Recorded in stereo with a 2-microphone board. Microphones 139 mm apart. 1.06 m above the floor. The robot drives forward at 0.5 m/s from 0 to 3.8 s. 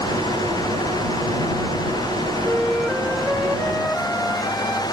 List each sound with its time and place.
2.5 s a flute: centre (ahead or behind), 0.6 m